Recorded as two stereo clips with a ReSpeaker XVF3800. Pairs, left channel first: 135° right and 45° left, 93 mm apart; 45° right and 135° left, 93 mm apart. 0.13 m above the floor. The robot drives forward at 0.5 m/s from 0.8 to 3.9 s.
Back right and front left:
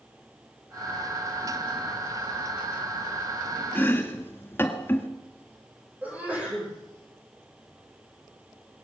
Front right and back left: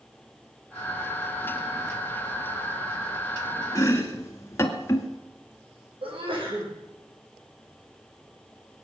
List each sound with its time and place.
3.8 s chopping: 80° right, 1.6 m; by 5.1 s 85° right, 1.6 m
6.0 s a sneeze: 120° left, 7 m